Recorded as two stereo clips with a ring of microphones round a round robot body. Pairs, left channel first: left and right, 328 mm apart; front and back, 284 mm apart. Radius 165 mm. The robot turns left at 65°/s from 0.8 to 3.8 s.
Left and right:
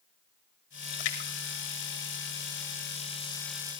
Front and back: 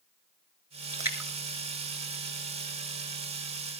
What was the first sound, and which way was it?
A splash, 105° left.